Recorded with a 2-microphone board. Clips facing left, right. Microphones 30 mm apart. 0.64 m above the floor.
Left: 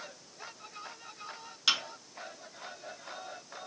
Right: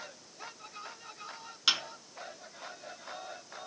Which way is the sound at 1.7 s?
5° right (ahead or behind).